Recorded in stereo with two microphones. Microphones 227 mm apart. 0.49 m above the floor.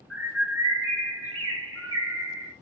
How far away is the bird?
About 1.0 m.